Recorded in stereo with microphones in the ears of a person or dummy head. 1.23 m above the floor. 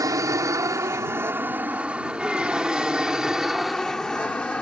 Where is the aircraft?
15° right (ahead or behind); by 4.6 s 5° left (ahead or behind).